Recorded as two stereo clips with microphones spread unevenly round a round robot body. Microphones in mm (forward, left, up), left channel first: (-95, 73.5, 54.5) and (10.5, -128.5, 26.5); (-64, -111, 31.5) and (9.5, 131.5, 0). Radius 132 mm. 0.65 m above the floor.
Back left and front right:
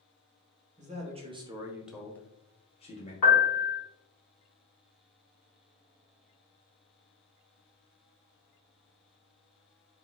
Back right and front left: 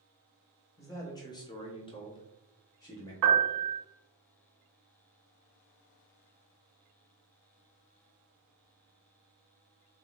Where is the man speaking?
25° right, 0.8 m; by 3.1 s 175° left, 0.8 m.